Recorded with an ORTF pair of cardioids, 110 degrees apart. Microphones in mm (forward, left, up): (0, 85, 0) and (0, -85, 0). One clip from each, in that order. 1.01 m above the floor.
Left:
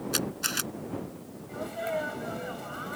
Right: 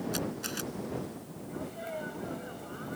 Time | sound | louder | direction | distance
0.1 | a camera shutter | left 5 dB | 50° left | ?
1.5 | a sneeze | left 7 dB | 45° left | ?